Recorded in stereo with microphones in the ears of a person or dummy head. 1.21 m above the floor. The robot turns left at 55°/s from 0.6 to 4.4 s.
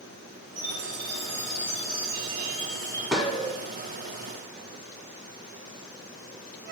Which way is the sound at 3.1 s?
5° right (ahead or behind).